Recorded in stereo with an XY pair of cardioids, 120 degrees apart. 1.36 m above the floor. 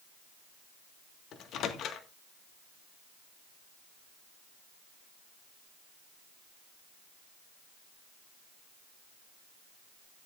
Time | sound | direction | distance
1.3 | a microwave | 60° left | 1.6 m